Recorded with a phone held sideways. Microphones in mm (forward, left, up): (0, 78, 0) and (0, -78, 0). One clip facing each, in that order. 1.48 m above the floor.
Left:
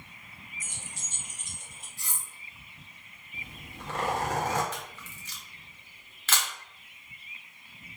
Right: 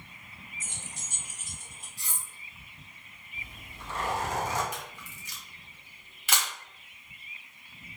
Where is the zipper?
60° left (ahead or behind), 0.9 m.